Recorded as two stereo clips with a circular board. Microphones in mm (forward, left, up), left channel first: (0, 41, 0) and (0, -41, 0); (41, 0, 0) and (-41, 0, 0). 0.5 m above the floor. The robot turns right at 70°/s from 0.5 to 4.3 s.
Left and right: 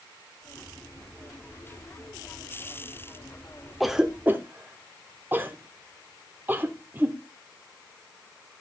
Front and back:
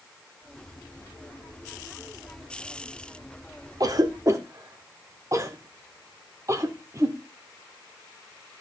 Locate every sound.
3.8 s a cough: straight behind, 1.1 m; by 7.2 s 145° right, 1.1 m